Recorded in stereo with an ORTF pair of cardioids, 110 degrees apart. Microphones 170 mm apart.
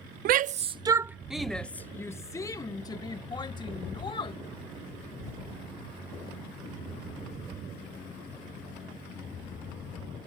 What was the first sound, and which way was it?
A shout, 65° right.